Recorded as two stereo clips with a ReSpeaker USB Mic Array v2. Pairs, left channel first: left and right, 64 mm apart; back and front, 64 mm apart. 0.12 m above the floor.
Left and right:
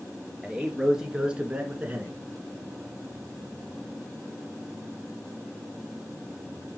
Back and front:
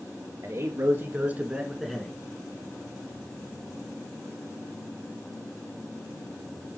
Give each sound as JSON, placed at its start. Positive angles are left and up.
{"t": 0.4, "sound": "a man speaking", "azimuth_deg": -5, "distance_m": 2.5}